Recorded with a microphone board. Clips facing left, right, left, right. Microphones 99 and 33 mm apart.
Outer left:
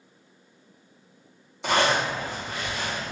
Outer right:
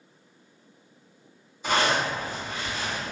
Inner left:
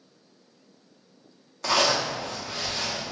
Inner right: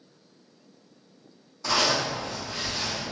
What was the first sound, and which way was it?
A zipper, 75° left (ahead or behind).